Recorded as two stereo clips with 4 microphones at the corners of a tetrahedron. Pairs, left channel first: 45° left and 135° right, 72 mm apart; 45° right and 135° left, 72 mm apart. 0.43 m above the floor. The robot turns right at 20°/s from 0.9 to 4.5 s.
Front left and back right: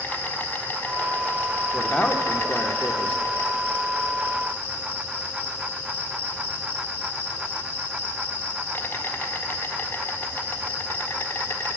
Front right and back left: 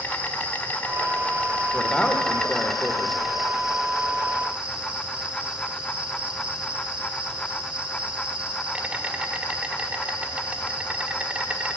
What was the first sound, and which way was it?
An insect, 5° left.